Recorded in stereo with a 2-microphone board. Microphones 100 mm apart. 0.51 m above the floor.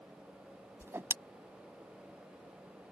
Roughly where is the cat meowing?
No cat meowing in this recording.